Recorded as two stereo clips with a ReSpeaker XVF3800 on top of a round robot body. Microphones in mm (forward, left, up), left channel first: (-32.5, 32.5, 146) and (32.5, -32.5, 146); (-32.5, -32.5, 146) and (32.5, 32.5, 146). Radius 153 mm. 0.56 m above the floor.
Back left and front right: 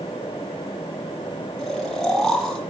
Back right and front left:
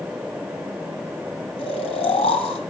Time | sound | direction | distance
1.6 | snoring | 140° right | 1.4 m